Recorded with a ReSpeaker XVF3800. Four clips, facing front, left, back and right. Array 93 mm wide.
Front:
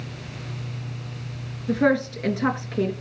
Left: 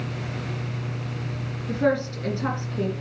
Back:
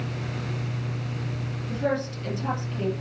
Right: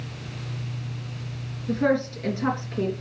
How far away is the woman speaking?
About 3 m.